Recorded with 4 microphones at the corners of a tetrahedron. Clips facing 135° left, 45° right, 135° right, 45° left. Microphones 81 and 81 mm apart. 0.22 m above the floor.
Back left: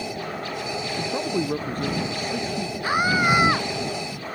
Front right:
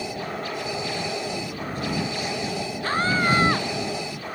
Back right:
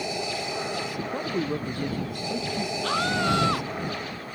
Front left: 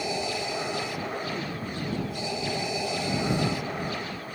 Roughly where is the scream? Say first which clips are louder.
Back left 2 dB, back right 6 dB; behind right.